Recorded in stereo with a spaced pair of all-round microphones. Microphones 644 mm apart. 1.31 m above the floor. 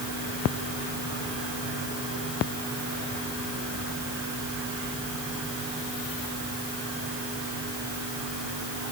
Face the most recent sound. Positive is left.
No sound to turn to.